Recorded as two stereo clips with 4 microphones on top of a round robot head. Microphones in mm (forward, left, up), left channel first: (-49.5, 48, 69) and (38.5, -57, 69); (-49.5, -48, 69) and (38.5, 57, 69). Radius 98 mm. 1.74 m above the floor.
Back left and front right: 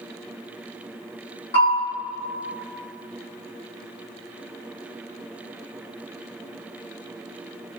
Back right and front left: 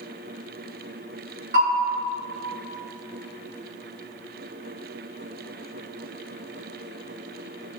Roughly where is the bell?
Left.